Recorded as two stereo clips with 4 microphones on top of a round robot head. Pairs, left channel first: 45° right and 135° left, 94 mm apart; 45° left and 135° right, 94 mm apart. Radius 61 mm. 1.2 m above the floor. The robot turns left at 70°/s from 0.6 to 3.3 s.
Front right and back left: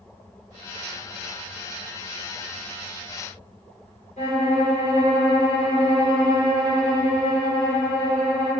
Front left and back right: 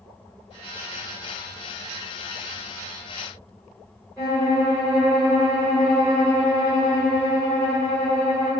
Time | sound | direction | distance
4.2 | a violin | 35° right | 1.1 m